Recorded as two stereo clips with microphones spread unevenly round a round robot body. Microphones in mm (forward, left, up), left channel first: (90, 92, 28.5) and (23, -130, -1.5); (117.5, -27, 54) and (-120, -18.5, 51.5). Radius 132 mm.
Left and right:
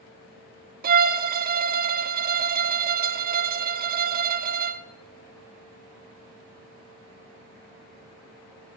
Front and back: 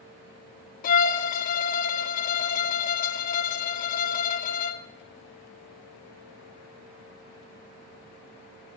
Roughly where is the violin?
Ahead right.